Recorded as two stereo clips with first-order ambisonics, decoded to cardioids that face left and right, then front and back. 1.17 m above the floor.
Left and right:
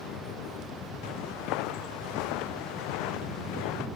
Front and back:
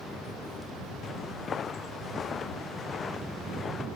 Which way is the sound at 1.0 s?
65° left.